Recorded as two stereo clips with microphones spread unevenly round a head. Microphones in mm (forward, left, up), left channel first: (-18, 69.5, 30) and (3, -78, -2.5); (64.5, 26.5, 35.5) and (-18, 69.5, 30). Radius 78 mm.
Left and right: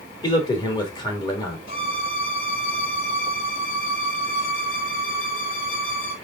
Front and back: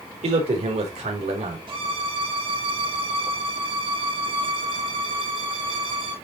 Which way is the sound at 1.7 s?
130° left.